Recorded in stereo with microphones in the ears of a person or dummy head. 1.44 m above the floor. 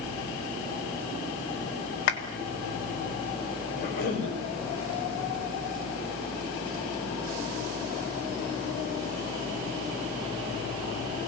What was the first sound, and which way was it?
A clap, 55° left (ahead or behind).